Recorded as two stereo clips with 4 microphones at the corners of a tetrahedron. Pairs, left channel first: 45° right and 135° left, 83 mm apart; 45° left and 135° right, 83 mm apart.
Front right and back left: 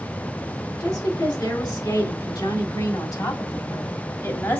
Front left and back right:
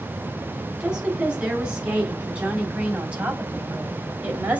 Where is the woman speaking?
60° right, 3.5 m; by 4.6 s 75° right, 1.8 m.